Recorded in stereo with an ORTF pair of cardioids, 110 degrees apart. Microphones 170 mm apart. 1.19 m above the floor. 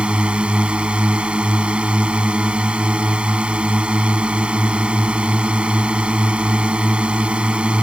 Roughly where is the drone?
Ahead.